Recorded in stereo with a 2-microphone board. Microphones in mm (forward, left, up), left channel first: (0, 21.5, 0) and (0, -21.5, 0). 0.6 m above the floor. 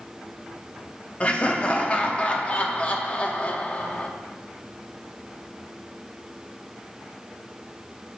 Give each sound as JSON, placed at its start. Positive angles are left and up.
{"t": 1.2, "sound": "laughter", "side_deg": 30, "distance_m": 0.8}